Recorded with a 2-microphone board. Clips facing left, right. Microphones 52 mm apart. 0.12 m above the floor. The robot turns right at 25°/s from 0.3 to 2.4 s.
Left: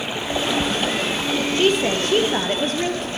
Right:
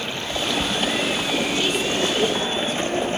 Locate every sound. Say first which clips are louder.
0.0 s running water: left 2 dB; 165° left, 1.5 m; by 3.2 s 140° right, 1.5 m
1.6 s a woman speaking: left 4 dB; 35° left (ahead or behind), 2.5 m; by 3.1 s 55° left (ahead or behind), 2.5 m